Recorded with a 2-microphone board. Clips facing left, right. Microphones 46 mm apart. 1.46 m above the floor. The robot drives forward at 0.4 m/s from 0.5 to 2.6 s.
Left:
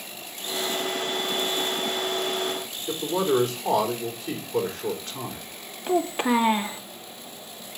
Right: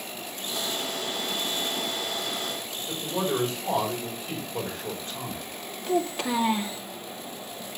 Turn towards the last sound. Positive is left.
turn(degrees=25)  # may be behind; listen again after turning